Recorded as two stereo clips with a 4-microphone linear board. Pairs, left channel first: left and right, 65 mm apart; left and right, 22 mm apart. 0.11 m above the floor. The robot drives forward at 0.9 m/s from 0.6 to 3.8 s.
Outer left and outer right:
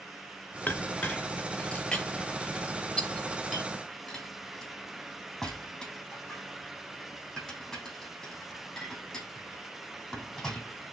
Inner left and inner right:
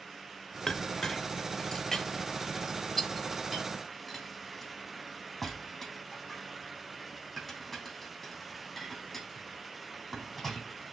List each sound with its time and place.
0.7 s a clink: 20° left (ahead or behind), 0.8 m; by 10.9 s 5° left (ahead or behind), 3 m